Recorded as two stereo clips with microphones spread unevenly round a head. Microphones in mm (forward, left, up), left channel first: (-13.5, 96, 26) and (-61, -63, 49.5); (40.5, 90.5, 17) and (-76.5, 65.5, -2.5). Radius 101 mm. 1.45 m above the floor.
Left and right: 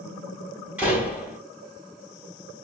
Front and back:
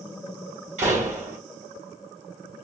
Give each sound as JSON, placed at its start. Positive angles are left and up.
{"t": 0.8, "sound": "a door slam", "azimuth_deg": 170, "distance_m": 3.0}